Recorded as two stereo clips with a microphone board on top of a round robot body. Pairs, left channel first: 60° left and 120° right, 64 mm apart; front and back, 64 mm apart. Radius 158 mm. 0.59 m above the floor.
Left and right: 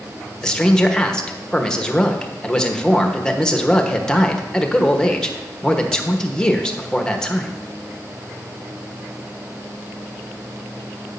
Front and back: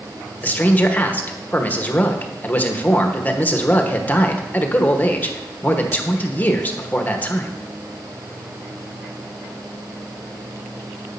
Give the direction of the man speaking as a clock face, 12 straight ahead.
12 o'clock.